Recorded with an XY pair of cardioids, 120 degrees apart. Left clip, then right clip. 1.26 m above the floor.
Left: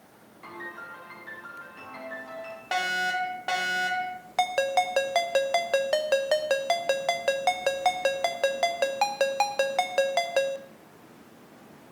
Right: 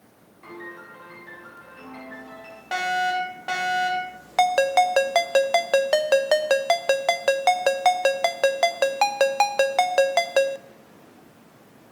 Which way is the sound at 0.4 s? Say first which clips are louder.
Even; 20° left.